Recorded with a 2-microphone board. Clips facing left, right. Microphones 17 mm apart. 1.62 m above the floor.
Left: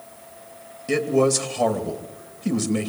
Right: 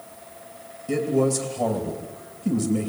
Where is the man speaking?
60° left (ahead or behind), 2.5 m.